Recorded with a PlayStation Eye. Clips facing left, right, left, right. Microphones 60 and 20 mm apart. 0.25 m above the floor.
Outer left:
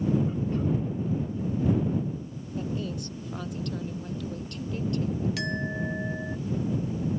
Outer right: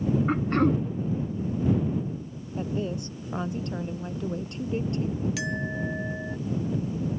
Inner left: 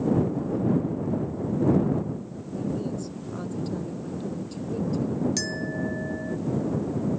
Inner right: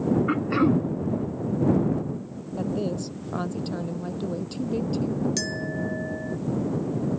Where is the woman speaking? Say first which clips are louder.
Outer right 3 dB, inner right 2 dB; 25° right (ahead or behind).